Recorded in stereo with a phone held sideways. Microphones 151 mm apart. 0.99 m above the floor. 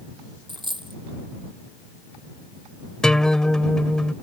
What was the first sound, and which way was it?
A dropped coin, 30° right (ahead or behind).